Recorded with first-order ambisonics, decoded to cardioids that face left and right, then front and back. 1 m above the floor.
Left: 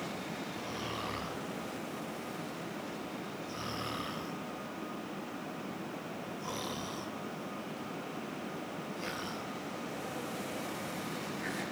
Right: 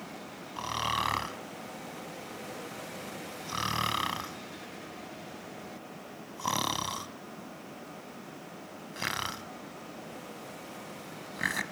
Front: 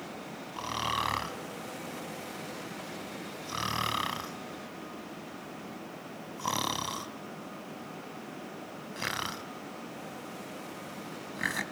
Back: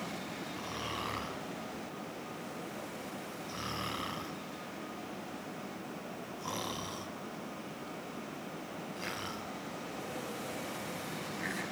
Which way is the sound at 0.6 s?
55° right.